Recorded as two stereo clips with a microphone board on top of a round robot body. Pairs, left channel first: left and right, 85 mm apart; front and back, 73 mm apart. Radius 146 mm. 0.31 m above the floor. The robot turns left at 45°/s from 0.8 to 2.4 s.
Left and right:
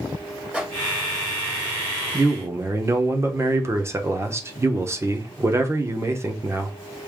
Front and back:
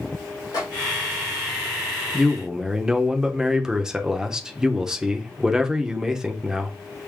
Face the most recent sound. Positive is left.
turn(degrees=-105)